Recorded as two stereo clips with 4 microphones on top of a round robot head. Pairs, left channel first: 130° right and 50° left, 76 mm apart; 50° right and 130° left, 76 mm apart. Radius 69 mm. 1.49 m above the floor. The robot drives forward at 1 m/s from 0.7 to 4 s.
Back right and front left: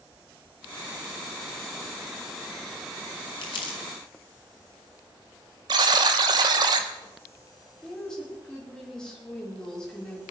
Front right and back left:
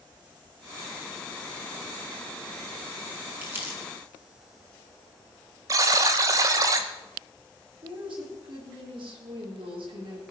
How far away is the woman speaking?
About 4.5 m.